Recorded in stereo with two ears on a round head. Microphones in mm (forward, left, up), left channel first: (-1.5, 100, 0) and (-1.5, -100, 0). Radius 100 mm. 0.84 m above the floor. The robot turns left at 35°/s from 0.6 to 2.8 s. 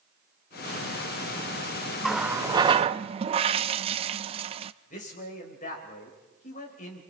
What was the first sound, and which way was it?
A running tap, centre (ahead or behind).